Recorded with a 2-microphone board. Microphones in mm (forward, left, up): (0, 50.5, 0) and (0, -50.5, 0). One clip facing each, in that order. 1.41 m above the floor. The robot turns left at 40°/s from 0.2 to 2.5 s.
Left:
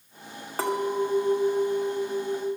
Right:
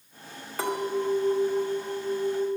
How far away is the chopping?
I don't hear chopping.